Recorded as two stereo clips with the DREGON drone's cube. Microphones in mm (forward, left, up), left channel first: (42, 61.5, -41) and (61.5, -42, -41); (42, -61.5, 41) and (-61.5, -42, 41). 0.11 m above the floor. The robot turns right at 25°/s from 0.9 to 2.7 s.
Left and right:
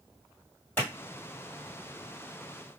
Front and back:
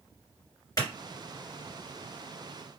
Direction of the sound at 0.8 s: 35° left.